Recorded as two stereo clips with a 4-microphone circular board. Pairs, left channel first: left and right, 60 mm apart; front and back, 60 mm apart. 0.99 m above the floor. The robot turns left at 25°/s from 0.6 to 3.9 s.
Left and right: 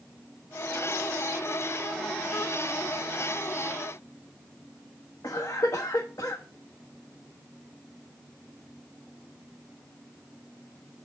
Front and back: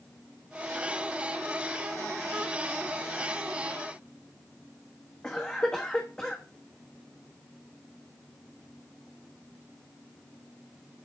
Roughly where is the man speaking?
I don't hear a man speaking.